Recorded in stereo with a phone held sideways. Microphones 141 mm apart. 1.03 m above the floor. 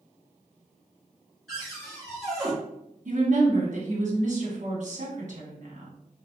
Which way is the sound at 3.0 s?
60° right (ahead or behind).